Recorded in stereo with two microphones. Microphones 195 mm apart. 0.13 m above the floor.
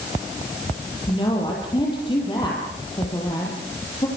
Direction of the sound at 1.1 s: 25° left (ahead or behind).